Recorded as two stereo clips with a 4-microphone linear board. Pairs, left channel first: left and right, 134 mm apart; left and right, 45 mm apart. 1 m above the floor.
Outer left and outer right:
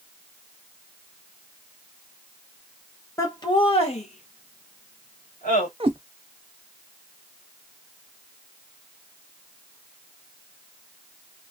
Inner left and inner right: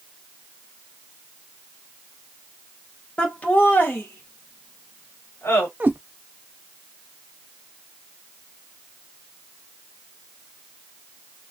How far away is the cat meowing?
About 0.6 m.